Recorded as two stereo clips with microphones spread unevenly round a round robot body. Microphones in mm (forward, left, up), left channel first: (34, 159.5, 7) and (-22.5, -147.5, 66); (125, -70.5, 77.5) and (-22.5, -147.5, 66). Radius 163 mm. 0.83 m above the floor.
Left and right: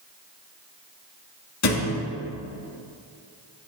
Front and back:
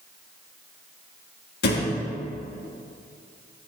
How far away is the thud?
About 2 m.